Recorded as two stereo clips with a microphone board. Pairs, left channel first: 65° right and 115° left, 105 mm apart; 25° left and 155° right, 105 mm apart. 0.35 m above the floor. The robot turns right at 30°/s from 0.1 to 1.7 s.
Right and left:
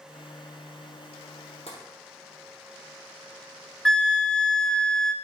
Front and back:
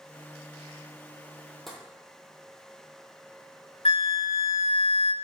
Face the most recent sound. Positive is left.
turn(degrees=15)